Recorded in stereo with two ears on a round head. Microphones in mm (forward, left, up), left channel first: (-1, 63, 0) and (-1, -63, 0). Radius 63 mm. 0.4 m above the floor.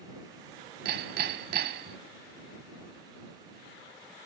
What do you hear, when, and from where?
0.8 s hammering: 70° right (ahead or behind)